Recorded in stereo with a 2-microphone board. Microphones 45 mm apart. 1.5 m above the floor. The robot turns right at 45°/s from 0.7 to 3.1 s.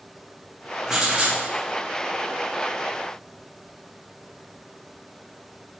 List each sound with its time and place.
0.9 s writing: 15° right (ahead or behind), 1.8 m; by 1.4 s 40° right (ahead or behind), 1.8 m